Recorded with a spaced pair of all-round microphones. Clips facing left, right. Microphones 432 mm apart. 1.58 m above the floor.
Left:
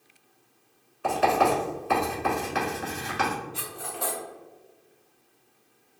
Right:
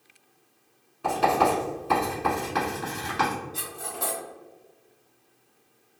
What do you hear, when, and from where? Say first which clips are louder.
1.0 s writing: even; 60° right (ahead or behind), 2.0 m
3.5 s cutlery clinking: even; 60° right (ahead or behind), 1.4 m